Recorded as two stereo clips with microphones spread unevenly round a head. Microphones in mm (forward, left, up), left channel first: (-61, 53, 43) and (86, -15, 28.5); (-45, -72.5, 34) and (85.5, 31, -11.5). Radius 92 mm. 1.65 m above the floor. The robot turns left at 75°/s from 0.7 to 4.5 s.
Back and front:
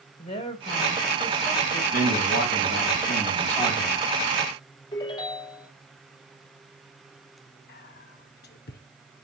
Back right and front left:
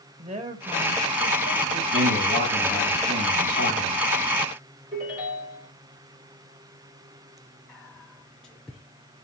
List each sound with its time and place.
0.2 s a woman speaking: 100° left, 2 m; by 1.8 s 15° left, 2 m
1.9 s a man speaking: 165° right, 6 m; by 4.0 s 40° left, 6 m
4.9 s a ringtone: 95° left, 4 m
7.7 s whispering: 130° left, 0.7 m